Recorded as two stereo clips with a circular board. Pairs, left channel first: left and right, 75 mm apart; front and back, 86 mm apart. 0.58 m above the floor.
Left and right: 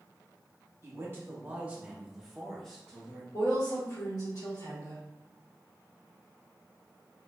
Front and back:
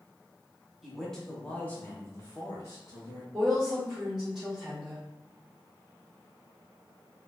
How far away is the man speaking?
About 0.9 m.